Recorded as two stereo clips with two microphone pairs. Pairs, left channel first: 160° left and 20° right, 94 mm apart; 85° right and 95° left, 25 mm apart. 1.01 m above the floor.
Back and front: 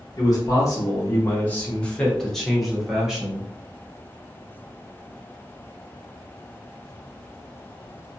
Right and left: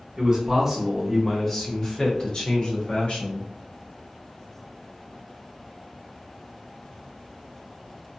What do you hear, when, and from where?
0.2 s a man speaking: 145° left, 1.0 m; by 3.5 s 100° right, 1.5 m